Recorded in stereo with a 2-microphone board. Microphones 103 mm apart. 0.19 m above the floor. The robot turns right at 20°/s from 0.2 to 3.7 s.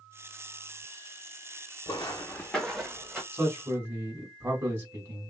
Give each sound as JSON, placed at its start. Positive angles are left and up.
{"t": 1.9, "sound": "footsteps", "side_deg": 40, "distance_m": 0.8}
{"t": 3.3, "sound": "a man speaking", "side_deg": -20, "distance_m": 1.3}